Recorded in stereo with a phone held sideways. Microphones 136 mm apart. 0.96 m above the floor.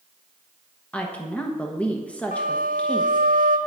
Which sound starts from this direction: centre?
A woman speaking, at 0.9 s.